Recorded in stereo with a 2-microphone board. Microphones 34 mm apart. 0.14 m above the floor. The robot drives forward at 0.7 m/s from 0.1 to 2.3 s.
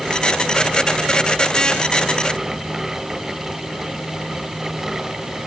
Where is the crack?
I don't hear a crack.